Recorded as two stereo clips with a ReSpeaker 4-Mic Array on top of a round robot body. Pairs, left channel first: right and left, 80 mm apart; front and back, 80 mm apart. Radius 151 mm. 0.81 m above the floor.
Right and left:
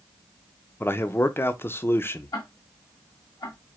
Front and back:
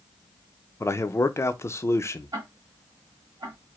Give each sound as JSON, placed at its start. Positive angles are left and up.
{"t": 0.8, "sound": "a man speaking", "azimuth_deg": -40, "distance_m": 0.8}
{"t": 2.3, "sound": "ticking", "azimuth_deg": -135, "distance_m": 1.7}